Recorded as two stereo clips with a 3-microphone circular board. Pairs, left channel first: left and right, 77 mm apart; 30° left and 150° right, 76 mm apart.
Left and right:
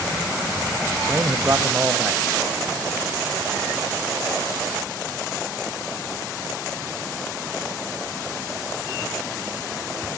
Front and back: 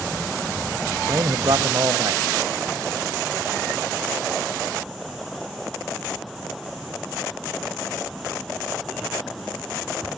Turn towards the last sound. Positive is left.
turn(degrees=-140)